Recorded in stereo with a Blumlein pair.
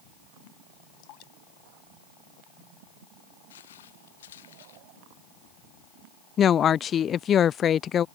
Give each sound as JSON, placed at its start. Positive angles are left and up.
{"t": 1.0, "sound": "dripping", "azimuth_deg": 40}
{"t": 3.5, "sound": "footsteps", "azimuth_deg": 60}
{"t": 6.4, "sound": "a woman speaking", "azimuth_deg": 25}